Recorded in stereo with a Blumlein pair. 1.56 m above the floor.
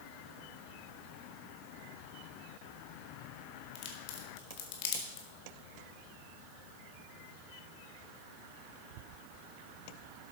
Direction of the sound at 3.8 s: 45° left.